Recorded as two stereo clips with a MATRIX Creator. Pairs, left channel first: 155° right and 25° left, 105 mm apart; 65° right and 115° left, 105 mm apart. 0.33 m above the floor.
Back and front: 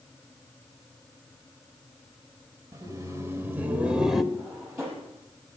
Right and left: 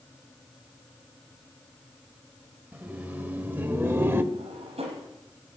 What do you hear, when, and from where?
2.7 s laughter: 45° left, 1.4 m; by 4.2 s 110° left, 1.1 m
4.3 s a drawer: 90° left, 5 m